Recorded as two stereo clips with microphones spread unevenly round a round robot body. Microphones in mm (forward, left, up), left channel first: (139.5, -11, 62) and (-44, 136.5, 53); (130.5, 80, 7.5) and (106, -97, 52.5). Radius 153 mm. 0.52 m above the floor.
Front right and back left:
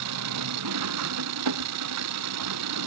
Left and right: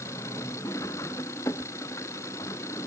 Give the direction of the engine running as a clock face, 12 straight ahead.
7 o'clock.